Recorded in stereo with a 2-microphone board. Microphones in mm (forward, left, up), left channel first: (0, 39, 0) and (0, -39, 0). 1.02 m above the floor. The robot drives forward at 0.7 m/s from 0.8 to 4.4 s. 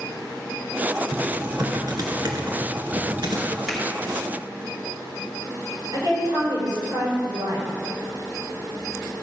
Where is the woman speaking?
60° right (ahead or behind), 4.5 m.